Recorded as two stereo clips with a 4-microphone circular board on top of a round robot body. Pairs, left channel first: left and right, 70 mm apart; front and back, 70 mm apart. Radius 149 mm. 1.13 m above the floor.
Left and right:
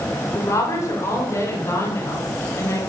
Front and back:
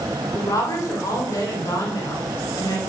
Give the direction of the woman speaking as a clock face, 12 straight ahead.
11 o'clock.